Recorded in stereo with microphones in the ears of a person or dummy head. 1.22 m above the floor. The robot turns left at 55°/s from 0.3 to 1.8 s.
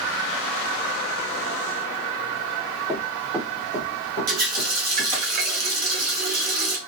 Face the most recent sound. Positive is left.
turn(degrees=-45)  # may be behind; listen again after turning